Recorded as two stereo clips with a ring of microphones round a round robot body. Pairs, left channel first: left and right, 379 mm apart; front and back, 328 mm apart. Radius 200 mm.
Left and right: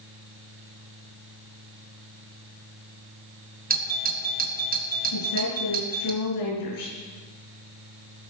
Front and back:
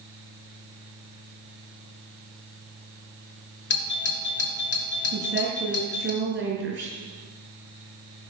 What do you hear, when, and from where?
3.7 s a doorbell: 35° right, 1.7 m
5.1 s a woman speaking: 125° left, 7 m